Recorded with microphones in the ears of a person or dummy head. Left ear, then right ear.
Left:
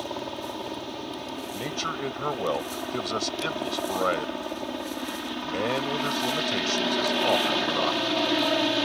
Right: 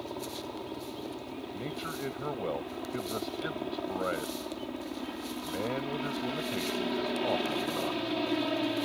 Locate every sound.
0.0 s a helicopter: 45° left (ahead or behind)
1.5 s a man speaking: 90° left